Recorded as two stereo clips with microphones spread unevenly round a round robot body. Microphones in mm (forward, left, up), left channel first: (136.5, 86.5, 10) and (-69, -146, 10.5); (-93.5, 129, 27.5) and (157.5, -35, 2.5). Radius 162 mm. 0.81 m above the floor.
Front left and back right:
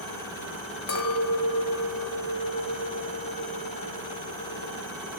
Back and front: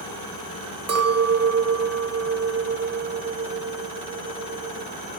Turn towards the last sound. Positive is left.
turn(degrees=5)